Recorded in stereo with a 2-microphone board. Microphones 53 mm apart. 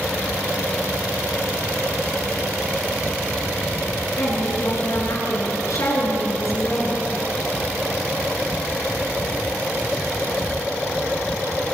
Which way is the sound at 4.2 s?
75° left (ahead or behind).